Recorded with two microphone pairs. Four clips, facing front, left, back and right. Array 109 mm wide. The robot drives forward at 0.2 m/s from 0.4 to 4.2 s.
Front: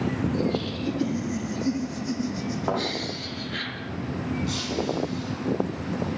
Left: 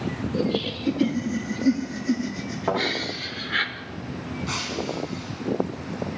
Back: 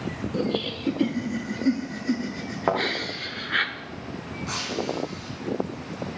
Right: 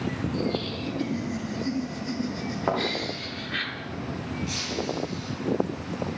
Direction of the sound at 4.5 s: 140° left.